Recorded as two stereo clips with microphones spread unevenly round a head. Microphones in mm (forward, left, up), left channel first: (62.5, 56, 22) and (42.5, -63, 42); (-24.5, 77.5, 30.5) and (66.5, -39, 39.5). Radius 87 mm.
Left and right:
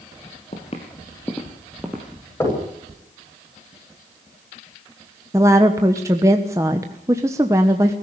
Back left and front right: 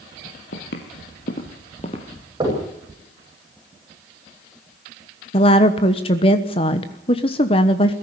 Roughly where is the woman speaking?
Behind.